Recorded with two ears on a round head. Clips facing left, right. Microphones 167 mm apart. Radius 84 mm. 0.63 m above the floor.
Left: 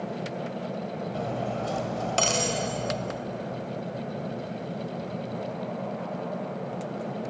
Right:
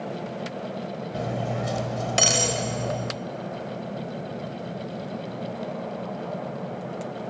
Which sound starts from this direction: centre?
Cutlery clinking, at 1.1 s.